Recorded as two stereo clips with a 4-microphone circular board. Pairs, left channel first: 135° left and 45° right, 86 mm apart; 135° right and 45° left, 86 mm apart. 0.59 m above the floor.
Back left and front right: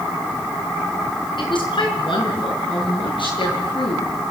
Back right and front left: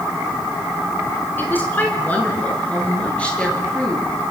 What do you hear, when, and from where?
1.4 s a woman speaking: 160° left, 6.5 m; by 4.3 s 145° left, 10.5 m